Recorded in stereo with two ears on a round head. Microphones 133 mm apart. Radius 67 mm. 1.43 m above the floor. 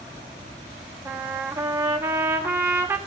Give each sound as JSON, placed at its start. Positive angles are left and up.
{"t": 1.1, "sound": "a trumpet", "side_deg": -15, "distance_m": 0.8}